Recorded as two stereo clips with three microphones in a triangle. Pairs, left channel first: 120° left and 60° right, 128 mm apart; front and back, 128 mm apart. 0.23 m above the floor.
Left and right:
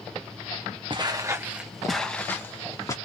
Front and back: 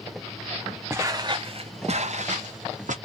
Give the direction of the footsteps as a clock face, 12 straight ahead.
4 o'clock.